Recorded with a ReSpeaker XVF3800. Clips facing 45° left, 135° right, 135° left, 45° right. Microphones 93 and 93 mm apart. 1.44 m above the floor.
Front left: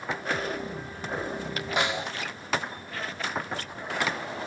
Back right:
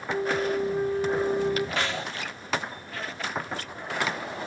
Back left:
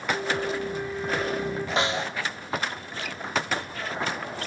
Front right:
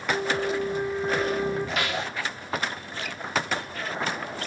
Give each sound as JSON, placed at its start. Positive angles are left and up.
{"t": 0.1, "sound": "a flute", "azimuth_deg": -110, "distance_m": 2.5}
{"t": 1.8, "sound": "a snare drum", "azimuth_deg": 100, "distance_m": 1.0}